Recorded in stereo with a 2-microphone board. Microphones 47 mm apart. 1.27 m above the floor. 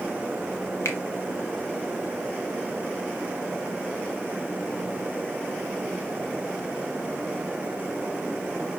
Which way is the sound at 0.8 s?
75° left (ahead or behind).